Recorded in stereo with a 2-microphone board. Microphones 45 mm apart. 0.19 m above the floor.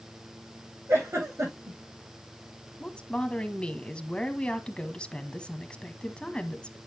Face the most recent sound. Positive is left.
turn(degrees=20)  # may be behind; listen again after turning